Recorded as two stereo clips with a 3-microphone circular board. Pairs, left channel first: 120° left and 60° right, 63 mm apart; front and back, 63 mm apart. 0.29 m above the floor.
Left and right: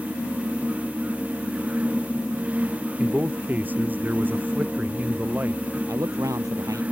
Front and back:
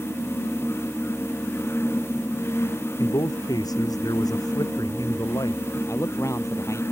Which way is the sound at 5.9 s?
35° right.